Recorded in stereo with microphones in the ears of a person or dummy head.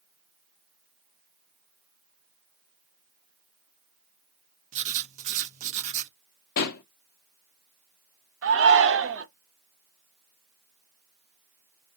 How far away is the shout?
About 0.7 m.